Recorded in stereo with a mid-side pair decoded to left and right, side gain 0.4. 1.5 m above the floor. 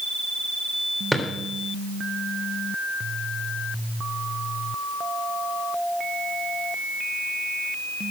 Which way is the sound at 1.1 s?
Straight ahead.